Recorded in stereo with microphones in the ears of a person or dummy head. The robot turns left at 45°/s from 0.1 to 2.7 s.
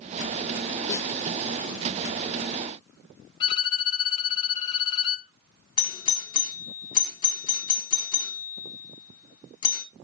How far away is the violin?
About 1.3 m.